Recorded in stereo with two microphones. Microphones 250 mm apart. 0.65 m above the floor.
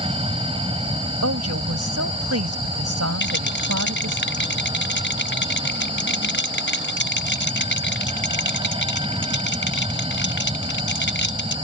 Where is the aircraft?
20° right (ahead or behind).